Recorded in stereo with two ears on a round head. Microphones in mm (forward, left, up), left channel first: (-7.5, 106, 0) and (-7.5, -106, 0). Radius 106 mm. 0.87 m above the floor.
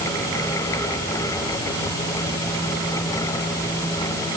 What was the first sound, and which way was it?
Only background noise.